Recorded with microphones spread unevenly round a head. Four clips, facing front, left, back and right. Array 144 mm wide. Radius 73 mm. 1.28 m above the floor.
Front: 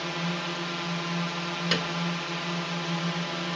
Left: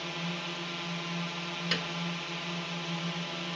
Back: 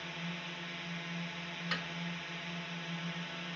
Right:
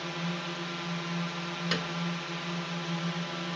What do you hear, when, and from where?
0.0 s a drone: 5° right
1.7 s a piano: 5° right